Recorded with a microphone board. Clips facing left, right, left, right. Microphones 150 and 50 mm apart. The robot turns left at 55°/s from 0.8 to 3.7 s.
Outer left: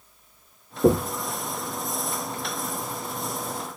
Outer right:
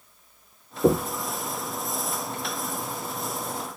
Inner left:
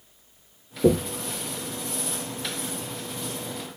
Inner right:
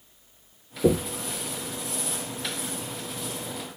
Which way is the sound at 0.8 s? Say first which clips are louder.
Outer left 1 dB, inner left 2 dB; 10° left (ahead or behind).